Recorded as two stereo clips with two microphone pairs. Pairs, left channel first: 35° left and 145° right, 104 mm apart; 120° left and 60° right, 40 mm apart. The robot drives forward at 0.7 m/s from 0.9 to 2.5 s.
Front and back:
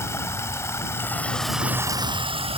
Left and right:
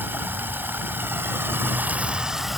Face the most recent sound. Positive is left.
turn(degrees=-140)